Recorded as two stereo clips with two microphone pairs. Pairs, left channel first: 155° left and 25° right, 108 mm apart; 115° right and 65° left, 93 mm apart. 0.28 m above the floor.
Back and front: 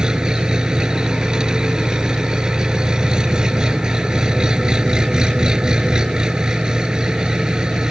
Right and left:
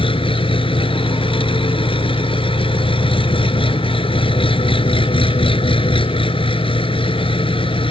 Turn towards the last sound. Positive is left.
turn(degrees=-110)